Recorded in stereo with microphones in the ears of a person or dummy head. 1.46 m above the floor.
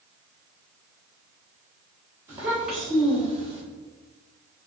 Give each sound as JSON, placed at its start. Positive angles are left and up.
{"t": 2.3, "sound": "a child speaking", "side_deg": -10, "distance_m": 1.0}